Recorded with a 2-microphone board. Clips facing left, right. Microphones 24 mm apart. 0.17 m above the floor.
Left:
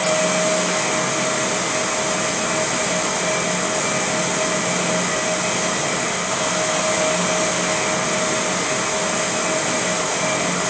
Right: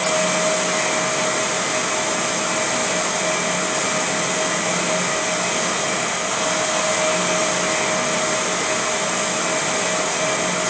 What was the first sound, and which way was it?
Only background noise.